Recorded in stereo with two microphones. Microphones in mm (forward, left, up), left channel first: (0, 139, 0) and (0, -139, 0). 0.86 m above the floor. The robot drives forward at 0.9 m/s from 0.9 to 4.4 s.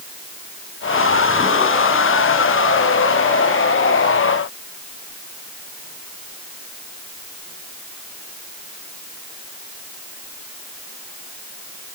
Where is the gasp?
No gasp in this recording.